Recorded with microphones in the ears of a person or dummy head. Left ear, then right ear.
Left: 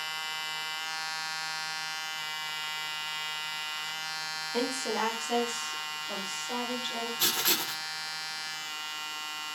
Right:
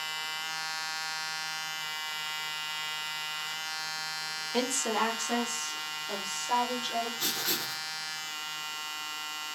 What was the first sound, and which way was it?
A woman speaking, 15° right (ahead or behind).